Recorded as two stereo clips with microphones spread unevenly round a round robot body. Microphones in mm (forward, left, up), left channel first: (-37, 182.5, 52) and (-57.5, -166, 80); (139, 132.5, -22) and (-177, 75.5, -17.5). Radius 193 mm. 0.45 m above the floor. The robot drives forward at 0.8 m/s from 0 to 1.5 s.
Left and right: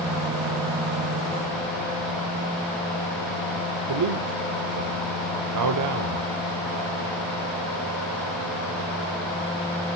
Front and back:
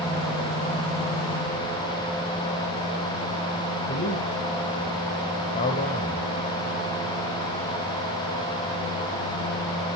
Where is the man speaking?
60° right, 1.4 m.